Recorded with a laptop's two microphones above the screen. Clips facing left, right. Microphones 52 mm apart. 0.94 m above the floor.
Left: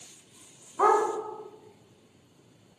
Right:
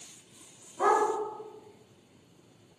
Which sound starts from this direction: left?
A dog barking, at 0.8 s.